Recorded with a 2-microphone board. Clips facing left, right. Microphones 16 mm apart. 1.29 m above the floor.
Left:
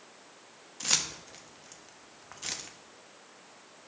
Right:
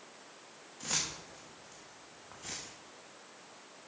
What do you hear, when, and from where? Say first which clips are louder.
0.8 s keys jangling: left 6 dB; 75° left (ahead or behind), 1.3 m